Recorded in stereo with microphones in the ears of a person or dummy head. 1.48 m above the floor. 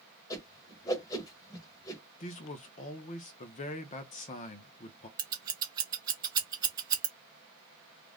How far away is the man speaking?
About 0.6 m.